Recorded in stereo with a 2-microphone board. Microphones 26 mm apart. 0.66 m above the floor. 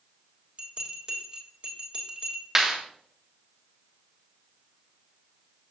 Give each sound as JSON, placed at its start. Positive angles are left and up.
{"t": 0.6, "sound": "a bell", "side_deg": -35, "distance_m": 2.0}
{"t": 2.5, "sound": "a clap", "side_deg": -15, "distance_m": 3.0}